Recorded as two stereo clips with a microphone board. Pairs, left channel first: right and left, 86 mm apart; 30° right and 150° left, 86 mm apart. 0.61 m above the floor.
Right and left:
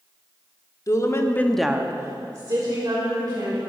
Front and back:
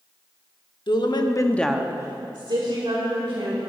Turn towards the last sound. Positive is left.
turn(degrees=130)